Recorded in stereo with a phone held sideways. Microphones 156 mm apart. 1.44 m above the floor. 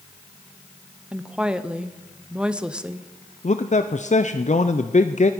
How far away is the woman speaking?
About 0.7 m.